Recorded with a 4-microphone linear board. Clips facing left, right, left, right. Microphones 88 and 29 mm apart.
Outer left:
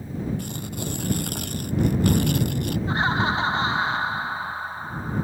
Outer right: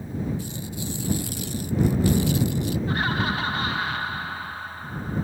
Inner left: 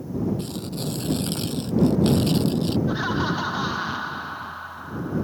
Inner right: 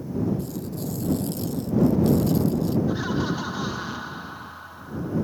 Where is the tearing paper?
60° left (ahead or behind).